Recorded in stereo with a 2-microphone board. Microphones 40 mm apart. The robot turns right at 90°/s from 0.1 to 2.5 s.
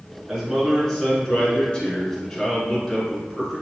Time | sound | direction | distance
0.3 | a man speaking | 10° right (ahead or behind) | 1.7 m